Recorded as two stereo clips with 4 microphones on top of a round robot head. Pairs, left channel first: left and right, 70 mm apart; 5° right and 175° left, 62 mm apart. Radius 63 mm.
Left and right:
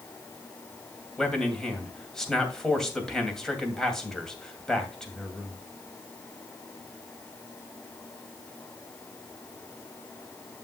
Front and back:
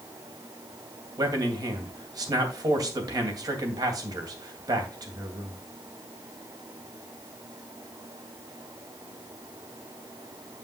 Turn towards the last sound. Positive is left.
turn(degrees=175)